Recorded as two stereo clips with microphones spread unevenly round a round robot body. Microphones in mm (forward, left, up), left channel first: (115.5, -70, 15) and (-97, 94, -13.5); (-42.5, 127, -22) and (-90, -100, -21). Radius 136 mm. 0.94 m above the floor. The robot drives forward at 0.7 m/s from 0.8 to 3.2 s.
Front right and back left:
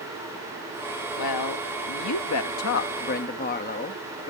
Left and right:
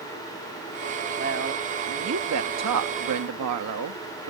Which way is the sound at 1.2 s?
45° right.